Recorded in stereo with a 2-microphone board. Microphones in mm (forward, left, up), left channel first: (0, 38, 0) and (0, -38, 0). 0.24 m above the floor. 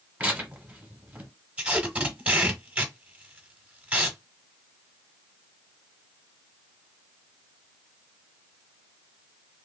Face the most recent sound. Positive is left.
turn(degrees=-15)  # may be behind; listen again after turning